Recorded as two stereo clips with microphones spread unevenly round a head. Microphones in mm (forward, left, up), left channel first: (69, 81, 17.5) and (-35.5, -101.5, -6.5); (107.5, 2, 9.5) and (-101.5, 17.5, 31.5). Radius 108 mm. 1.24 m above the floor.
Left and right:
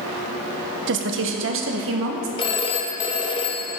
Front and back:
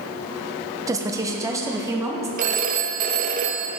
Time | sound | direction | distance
0.9 | a woman speaking | 105° right | 1.0 m
2.4 | a phone ringing | 125° left | 0.8 m